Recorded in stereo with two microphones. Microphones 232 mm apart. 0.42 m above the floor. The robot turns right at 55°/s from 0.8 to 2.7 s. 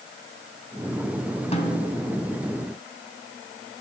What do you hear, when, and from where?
1.5 s a snare drum: 150° left, 2.5 m; by 2.1 s straight behind, 2.5 m